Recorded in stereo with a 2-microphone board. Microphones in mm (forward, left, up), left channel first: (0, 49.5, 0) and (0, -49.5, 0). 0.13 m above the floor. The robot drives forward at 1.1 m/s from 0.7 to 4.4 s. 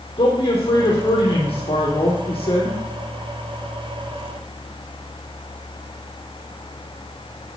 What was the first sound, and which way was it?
A man speaking, 75° left (ahead or behind).